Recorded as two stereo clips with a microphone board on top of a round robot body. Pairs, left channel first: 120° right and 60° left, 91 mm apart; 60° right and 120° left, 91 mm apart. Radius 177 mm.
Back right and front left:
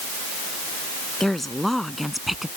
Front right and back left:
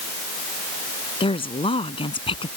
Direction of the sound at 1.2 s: 30° right.